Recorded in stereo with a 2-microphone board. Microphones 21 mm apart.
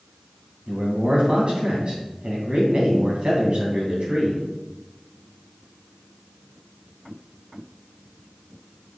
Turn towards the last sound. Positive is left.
turn(degrees=-50)  # may be behind; listen again after turning